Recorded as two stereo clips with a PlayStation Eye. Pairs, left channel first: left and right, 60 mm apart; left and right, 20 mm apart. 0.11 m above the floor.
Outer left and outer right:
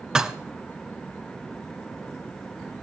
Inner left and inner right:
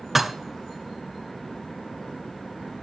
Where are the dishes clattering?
10° right (ahead or behind), 0.8 m.